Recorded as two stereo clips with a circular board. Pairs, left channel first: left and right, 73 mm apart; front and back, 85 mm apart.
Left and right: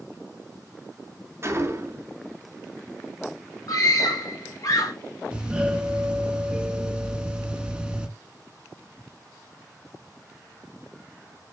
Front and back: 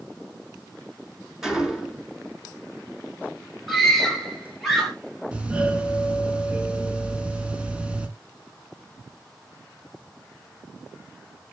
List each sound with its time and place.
1.4 s a gunshot: 100° right, 2 m
3.7 s a scream: 95° left, 2 m
5.3 s a doorbell: 140° right, 1.7 m